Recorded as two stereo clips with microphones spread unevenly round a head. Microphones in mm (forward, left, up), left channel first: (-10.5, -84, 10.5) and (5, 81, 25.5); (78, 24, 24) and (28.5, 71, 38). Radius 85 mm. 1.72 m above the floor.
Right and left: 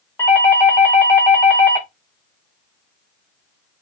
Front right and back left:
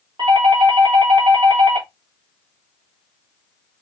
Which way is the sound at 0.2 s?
170° right.